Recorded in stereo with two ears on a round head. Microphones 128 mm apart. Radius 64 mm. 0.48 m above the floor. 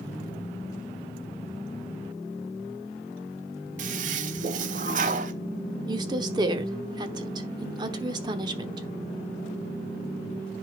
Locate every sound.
3.8 s a toilet flushing: 55° right (ahead or behind), 0.8 m
5.9 s a woman speaking: 30° right (ahead or behind), 1.0 m